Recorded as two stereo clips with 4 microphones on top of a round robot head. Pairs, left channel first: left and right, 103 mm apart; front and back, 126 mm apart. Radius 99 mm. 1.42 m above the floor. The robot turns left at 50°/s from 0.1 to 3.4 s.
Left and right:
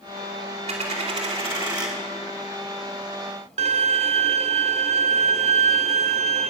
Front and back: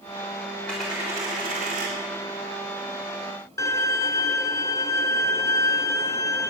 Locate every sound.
0.7 s a dropped coin: 85° right, 3 m; by 2.0 s 150° right, 3 m
3.6 s a violin: 70° right, 0.6 m